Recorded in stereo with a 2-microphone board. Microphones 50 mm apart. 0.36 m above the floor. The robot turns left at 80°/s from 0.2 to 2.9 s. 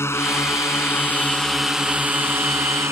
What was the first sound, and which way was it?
A drone, 115° left.